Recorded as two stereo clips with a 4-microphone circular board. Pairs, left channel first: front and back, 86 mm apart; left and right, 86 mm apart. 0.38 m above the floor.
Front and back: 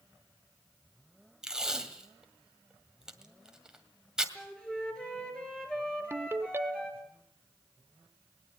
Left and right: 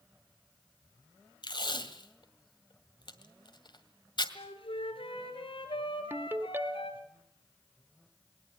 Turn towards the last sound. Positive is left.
turn(degrees=-140)